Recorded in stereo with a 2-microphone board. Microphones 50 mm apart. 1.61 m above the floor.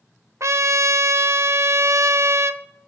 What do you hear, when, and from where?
0.4 s a trumpet: 75° right (ahead or behind), 0.5 m